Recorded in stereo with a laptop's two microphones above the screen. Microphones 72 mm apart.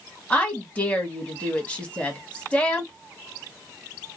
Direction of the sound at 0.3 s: 20° left (ahead or behind).